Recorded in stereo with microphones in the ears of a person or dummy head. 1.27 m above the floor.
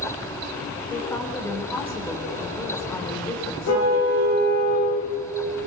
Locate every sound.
0.9 s a woman speaking: 10° left (ahead or behind), 4 m
3.7 s a car horn: 50° left (ahead or behind), 8 m